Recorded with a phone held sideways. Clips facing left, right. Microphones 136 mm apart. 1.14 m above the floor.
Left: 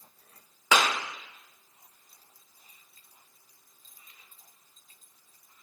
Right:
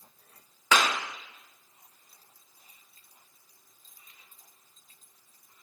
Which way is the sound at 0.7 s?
15° left (ahead or behind).